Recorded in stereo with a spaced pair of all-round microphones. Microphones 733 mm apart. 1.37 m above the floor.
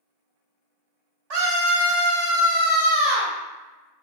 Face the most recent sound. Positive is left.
turn(degrees=-65)  # may be behind; listen again after turning